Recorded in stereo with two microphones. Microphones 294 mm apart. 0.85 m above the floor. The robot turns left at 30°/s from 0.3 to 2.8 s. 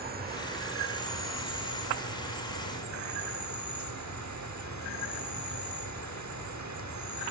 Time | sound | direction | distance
0.0 | an insect | 35° right | 1.0 m